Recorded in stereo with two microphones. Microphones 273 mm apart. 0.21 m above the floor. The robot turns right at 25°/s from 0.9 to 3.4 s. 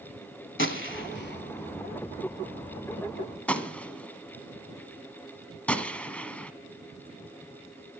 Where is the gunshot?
45° left (ahead or behind), 1.1 m; by 6.5 s 5° left (ahead or behind), 1.1 m.